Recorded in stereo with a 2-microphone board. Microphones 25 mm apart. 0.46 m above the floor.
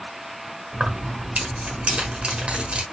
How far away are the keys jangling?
About 1.1 m.